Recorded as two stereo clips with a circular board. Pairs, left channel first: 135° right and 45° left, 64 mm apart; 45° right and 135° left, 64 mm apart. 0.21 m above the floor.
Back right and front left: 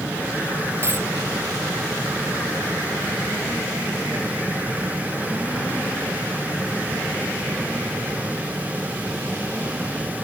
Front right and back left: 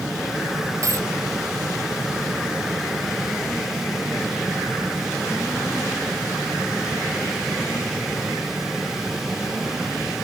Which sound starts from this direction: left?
A dropped coin, at 0.8 s.